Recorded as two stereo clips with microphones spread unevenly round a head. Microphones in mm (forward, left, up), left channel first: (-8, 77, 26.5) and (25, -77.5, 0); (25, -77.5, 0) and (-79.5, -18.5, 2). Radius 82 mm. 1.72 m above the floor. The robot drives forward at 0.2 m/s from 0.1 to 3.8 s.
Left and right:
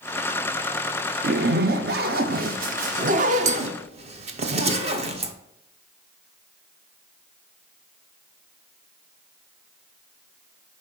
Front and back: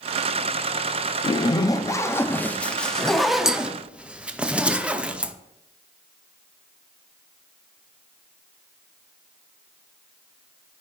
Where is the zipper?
65° right, 0.6 m; by 5.3 s 130° right, 0.7 m.